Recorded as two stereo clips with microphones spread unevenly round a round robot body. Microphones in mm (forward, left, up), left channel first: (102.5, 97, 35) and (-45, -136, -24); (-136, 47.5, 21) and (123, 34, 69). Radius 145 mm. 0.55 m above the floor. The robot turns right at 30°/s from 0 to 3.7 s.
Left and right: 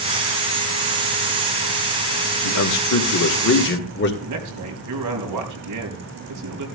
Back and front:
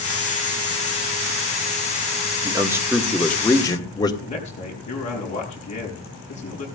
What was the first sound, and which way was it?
A man speaking, 75° left.